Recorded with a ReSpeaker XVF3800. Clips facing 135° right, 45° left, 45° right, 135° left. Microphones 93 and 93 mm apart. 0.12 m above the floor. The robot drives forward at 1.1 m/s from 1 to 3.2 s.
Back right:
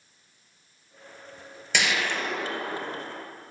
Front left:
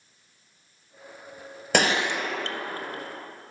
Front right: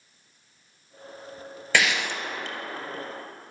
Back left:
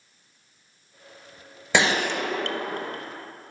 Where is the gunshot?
70° left, 0.6 m; by 3.0 s 160° left, 1.3 m.